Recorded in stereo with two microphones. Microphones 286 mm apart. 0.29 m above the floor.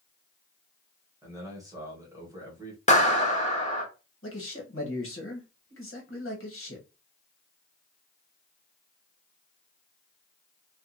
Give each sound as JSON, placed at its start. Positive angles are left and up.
{"t": 1.2, "sound": "a man speaking", "side_deg": -10, "distance_m": 1.2}
{"t": 2.9, "sound": "a clap", "side_deg": 25, "distance_m": 0.9}
{"t": 4.2, "sound": "a man speaking", "side_deg": 45, "distance_m": 1.2}